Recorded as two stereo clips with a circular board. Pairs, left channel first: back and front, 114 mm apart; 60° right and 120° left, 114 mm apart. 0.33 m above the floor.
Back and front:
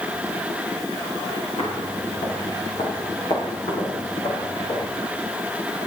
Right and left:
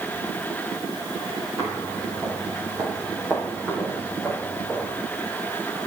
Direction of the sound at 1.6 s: 170° left.